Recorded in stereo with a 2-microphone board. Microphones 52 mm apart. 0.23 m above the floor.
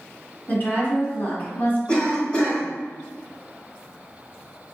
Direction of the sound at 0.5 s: 40° left (ahead or behind).